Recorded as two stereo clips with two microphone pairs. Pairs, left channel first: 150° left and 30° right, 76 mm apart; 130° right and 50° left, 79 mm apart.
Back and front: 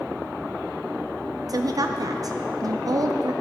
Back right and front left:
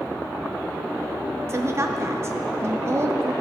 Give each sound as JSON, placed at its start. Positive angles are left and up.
{"t": 1.5, "sound": "a woman speaking", "azimuth_deg": 0, "distance_m": 0.6}